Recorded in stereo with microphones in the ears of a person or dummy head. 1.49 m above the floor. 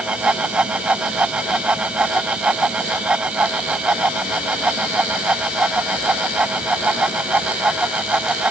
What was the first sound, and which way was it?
A fan, 5° right (ahead or behind).